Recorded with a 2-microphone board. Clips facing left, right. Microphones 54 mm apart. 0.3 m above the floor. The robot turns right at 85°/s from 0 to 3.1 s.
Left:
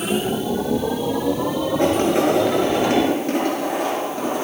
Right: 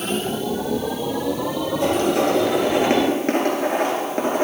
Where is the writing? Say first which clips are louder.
Left 1 dB; 60° left (ahead or behind), 3.5 m; by 4.4 s 50° right (ahead or behind), 3.5 m.